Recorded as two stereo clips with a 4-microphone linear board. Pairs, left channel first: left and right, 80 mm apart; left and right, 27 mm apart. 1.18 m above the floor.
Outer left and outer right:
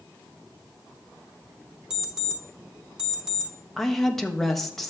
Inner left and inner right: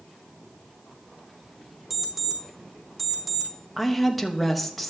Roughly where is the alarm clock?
Centre.